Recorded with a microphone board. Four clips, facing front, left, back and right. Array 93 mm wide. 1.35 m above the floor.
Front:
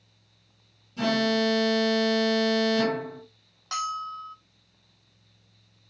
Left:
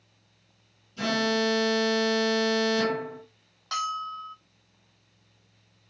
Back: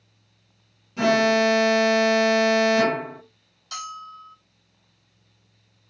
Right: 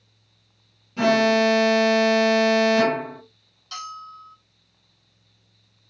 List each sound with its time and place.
1.0 s an alarm: 130° right, 0.8 m
3.7 s a bell: 45° left, 1.1 m